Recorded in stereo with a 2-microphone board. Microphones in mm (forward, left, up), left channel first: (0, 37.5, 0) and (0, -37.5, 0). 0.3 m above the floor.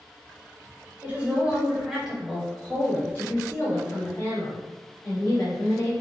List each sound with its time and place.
1.0 s a woman speaking: 25° right (ahead or behind), 1.4 m; by 5.9 s 55° left (ahead or behind), 2.5 m